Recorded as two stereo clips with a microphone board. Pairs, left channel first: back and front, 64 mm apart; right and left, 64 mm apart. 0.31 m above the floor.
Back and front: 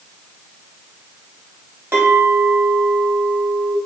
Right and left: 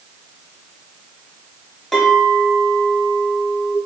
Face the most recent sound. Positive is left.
turn(degrees=-10)